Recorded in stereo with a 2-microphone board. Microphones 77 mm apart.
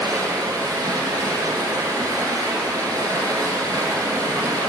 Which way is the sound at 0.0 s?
50° right (ahead or behind).